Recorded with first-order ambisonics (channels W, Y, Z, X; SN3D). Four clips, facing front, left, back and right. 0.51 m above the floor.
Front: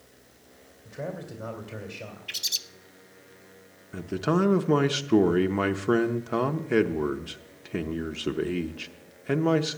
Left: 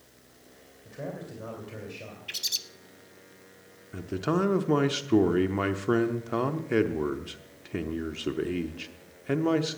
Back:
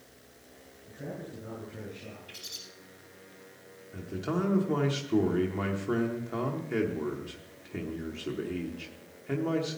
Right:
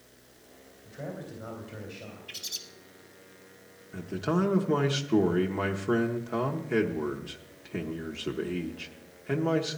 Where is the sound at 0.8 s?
25° left, 2.5 m.